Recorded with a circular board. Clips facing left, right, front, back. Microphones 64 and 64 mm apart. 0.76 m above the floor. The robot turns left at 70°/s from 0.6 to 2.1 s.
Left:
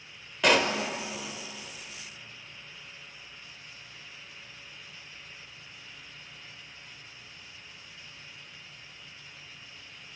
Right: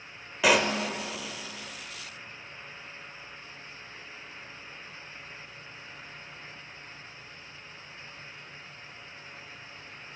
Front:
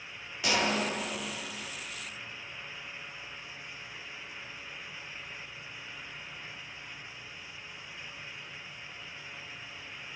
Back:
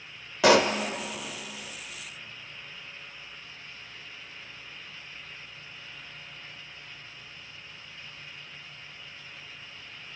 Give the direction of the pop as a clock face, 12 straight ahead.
6 o'clock.